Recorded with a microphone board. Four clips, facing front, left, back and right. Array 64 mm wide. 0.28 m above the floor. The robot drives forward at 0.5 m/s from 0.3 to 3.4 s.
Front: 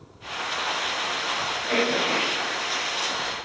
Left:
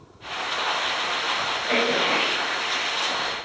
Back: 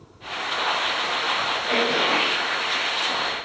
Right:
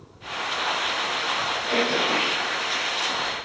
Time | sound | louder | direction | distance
1.7 | throat clearing | left 1 dB, back 1 dB | 110° left | 1.8 m